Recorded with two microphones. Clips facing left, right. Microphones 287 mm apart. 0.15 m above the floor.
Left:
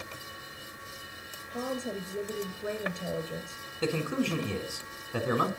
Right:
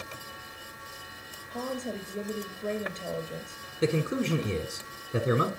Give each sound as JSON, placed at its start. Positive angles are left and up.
{"t": 1.5, "sound": "a woman speaking", "side_deg": 15, "distance_m": 2.0}
{"t": 3.8, "sound": "a man speaking", "side_deg": -25, "distance_m": 1.1}